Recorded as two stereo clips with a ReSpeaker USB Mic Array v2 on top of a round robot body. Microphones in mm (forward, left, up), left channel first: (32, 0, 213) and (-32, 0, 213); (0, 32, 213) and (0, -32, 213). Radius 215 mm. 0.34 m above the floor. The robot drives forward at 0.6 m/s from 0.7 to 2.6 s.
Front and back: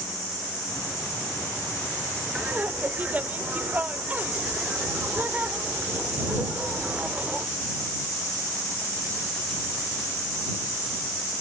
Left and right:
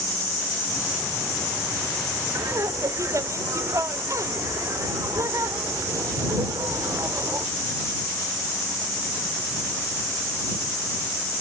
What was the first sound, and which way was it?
Laughter, 115° right.